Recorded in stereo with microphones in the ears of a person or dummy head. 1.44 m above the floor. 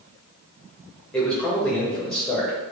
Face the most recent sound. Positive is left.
turn(degrees=-5)  # may be behind; listen again after turning